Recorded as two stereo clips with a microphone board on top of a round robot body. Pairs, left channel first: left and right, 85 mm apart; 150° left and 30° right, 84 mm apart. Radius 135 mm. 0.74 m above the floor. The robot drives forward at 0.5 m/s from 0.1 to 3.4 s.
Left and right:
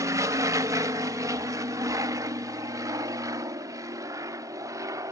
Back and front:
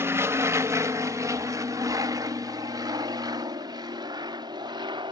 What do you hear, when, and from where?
0.0 s an aircraft: 75° right; by 5.1 s 45° right